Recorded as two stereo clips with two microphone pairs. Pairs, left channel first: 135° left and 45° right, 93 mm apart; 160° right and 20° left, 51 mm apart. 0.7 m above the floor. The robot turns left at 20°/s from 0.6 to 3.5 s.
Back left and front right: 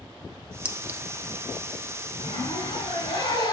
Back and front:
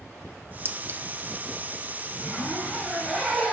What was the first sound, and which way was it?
A clink, 35° left.